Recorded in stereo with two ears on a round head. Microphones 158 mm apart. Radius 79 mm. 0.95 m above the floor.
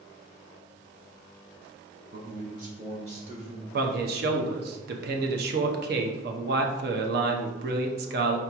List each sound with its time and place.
2.1 s a man speaking: 55° right (ahead or behind), 0.9 m; by 3.6 s 30° right (ahead or behind), 1.5 m
3.7 s a man speaking: 60° right (ahead or behind), 0.8 m